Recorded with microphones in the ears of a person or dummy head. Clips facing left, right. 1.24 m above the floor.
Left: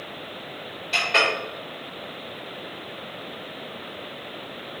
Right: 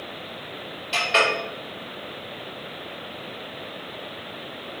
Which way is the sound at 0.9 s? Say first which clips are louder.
Right 2 dB; 15° right (ahead or behind).